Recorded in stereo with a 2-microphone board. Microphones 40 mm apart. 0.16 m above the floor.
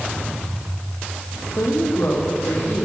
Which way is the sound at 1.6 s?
80° left.